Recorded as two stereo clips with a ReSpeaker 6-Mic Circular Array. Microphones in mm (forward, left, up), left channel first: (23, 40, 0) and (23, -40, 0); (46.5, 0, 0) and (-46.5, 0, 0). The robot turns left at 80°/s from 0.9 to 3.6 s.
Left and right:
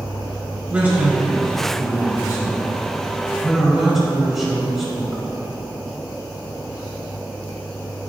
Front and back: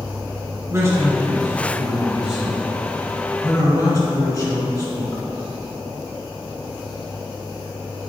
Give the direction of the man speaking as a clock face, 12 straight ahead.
5 o'clock.